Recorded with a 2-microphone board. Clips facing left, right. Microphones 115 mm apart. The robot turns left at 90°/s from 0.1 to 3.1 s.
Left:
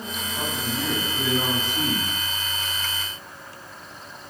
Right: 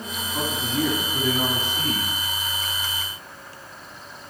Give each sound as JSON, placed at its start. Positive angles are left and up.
{"t": 0.3, "sound": "a man speaking", "azimuth_deg": -60, "distance_m": 3.5}